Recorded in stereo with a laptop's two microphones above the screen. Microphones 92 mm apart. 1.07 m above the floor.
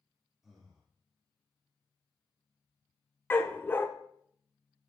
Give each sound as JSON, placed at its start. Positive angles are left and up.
{"t": 0.4, "sound": "breathing", "side_deg": -5, "distance_m": 1.7}
{"t": 3.3, "sound": "a dog barking", "side_deg": 25, "distance_m": 0.7}